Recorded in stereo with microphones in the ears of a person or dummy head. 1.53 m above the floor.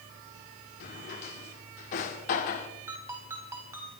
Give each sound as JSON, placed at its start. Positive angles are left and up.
{"t": 0.8, "sound": "a drawer", "side_deg": 45, "distance_m": 1.6}
{"t": 2.9, "sound": "a ringtone", "side_deg": -15, "distance_m": 4.0}